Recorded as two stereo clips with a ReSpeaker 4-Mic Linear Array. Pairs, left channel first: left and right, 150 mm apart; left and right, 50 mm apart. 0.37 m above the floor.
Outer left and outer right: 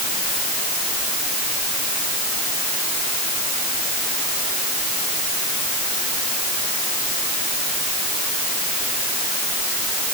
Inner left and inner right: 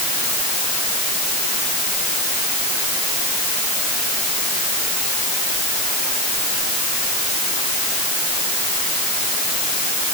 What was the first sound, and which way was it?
Only background noise.